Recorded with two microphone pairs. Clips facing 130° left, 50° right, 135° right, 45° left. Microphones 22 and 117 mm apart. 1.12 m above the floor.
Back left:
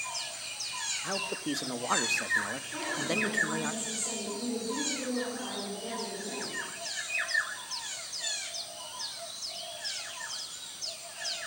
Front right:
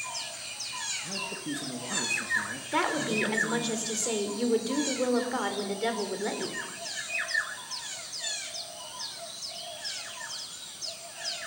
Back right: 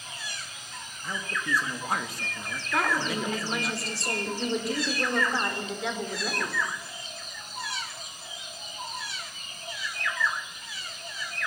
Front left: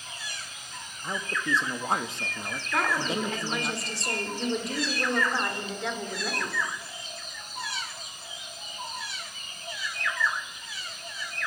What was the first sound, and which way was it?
A man speaking, 110° left.